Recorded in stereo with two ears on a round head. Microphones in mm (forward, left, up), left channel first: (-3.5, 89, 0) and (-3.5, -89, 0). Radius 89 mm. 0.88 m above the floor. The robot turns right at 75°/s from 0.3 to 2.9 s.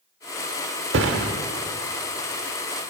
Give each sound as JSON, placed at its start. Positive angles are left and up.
{"t": 0.9, "sound": "a thud", "side_deg": -60, "distance_m": 0.9}